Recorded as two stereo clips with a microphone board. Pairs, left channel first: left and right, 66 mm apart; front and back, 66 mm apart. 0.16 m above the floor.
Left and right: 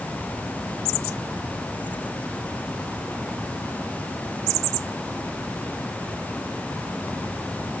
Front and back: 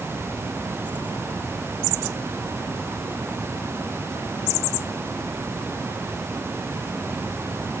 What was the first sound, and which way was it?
Only background noise.